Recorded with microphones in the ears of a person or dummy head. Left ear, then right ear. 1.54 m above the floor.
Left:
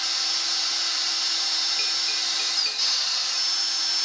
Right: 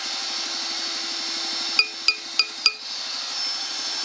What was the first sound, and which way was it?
A machine running, 60° left (ahead or behind).